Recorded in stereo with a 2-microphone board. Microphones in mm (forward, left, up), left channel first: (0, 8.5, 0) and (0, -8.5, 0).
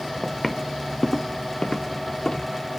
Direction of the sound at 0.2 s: 5° right (ahead or behind).